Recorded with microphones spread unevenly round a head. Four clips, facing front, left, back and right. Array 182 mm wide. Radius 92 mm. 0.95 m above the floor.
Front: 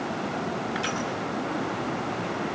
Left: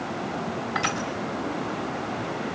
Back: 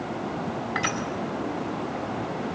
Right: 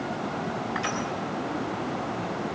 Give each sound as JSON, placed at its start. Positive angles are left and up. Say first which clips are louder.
{"t": 0.8, "sound": "crushing", "louder": "left 4 dB, back 1 dB", "azimuth_deg": 140, "distance_m": 5.0}